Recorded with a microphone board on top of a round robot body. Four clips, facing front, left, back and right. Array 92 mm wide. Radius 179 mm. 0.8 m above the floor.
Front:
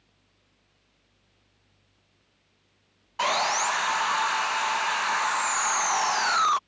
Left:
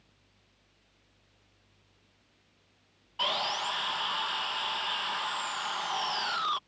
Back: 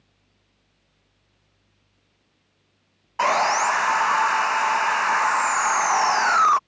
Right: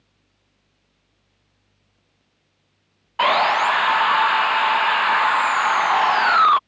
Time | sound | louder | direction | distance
3.2 | sawing | right 16 dB, back 6 dB | 115° right | ?